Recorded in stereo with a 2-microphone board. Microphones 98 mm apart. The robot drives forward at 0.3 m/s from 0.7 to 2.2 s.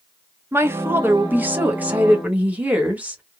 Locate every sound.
0.5 s a woman speaking: 25° right (ahead or behind), 0.6 m; by 3.2 s 15° right (ahead or behind), 1.0 m